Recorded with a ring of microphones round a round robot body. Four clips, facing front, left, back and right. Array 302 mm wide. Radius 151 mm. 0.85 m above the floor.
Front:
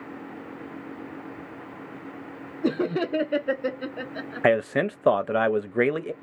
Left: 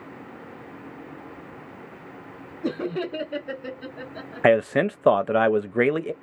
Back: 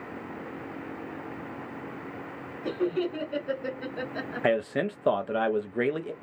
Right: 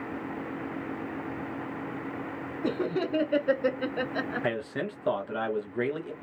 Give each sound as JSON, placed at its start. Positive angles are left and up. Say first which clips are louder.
{"t": 2.6, "sound": "laughter", "louder": "left 2 dB, front 3 dB", "azimuth_deg": 5, "distance_m": 0.8}
{"t": 4.4, "sound": "a man speaking", "louder": "left 12 dB, front 5 dB", "azimuth_deg": 65, "distance_m": 0.5}